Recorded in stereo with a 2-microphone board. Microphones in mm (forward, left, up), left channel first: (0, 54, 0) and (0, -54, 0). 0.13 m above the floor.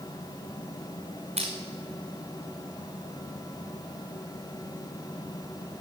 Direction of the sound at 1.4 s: 80° right.